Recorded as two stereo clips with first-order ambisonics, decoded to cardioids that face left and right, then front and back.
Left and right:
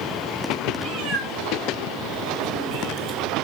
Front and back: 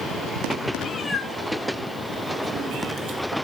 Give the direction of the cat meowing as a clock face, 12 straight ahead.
2 o'clock.